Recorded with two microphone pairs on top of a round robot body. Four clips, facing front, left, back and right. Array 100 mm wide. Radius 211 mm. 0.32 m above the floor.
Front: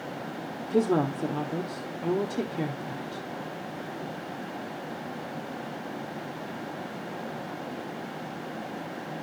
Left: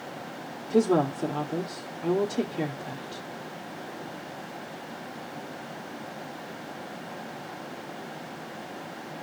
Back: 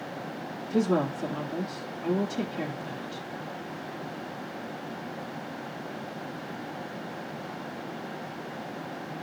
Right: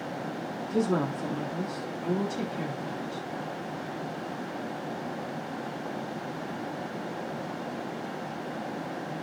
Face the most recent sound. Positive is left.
turn(degrees=70)